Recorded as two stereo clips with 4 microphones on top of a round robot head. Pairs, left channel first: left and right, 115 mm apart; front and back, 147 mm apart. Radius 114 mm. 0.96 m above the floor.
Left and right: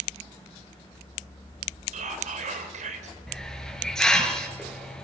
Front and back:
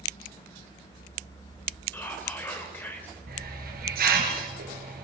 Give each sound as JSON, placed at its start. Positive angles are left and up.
{"t": 1.9, "sound": "whispering", "azimuth_deg": -80, "distance_m": 3.0}
{"t": 3.3, "sound": "a hiss", "azimuth_deg": 175, "distance_m": 5.0}